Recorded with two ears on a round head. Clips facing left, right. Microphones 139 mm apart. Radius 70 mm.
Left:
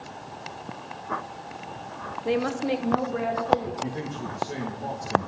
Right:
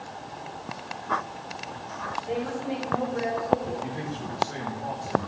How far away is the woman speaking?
About 0.8 m.